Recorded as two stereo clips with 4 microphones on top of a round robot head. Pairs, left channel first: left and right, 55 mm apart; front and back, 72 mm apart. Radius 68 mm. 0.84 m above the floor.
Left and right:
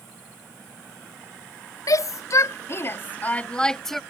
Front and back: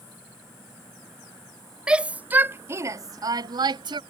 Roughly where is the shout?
Left.